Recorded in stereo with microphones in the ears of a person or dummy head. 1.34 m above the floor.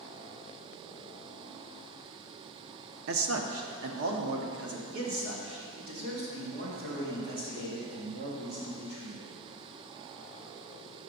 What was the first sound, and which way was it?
A man speaking, 65° right (ahead or behind).